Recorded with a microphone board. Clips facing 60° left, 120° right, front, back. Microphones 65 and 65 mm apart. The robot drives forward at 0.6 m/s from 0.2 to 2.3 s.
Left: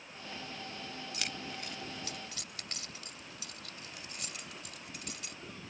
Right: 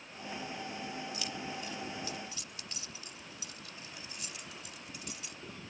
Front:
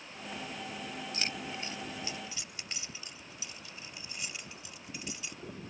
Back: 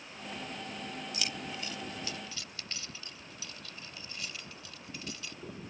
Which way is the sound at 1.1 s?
50° left.